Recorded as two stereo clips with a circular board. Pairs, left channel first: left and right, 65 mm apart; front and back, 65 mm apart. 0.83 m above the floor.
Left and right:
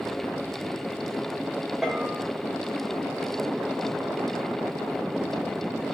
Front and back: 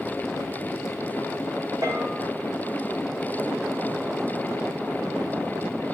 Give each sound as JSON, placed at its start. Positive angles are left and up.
{"t": 1.8, "sound": "a bell", "azimuth_deg": 180, "distance_m": 3.0}